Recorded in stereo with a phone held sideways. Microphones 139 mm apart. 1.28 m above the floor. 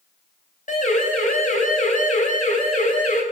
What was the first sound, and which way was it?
A siren, 70° left (ahead or behind).